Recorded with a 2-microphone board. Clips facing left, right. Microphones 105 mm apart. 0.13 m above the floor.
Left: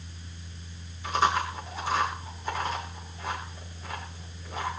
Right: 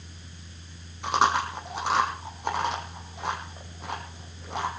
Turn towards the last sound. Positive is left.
turn(degrees=-70)  # may be behind; listen again after turning